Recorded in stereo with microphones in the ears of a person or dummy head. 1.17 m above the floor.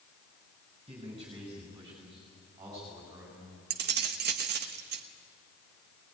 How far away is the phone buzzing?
No phone buzzing in this recording.